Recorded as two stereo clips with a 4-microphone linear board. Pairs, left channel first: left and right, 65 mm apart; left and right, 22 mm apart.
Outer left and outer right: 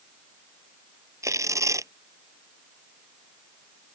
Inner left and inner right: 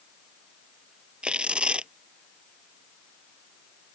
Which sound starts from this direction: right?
Tearing paper, at 1.2 s.